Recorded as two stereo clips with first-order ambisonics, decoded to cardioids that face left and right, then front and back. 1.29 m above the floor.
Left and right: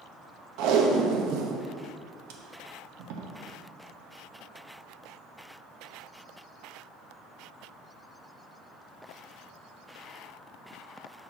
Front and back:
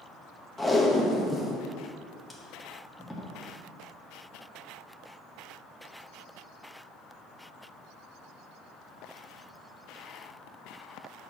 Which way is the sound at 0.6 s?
90° right.